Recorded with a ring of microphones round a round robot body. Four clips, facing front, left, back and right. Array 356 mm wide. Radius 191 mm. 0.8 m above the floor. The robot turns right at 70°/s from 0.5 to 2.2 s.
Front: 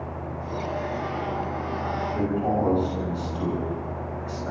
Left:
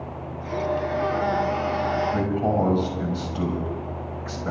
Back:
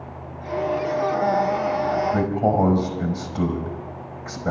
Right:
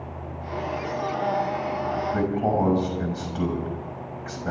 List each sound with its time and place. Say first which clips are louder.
2.1 s a man speaking: even, back 4 dB; 160° left, 5.5 m; by 4.5 s 165° left, 5.5 m